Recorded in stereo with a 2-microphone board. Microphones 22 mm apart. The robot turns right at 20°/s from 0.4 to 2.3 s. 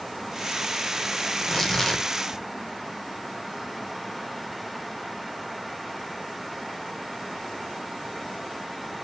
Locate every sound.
1.3 s tearing paper: 10° left (ahead or behind), 0.6 m; by 2.1 s 20° left (ahead or behind), 0.6 m